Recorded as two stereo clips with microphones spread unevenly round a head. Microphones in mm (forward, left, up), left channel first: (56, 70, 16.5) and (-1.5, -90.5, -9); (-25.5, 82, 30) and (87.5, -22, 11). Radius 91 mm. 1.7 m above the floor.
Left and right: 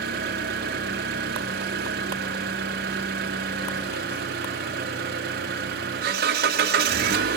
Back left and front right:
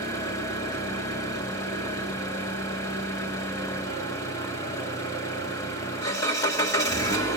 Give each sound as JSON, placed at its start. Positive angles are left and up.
{"t": 0.0, "sound": "an engine running", "azimuth_deg": -155, "distance_m": 2.0}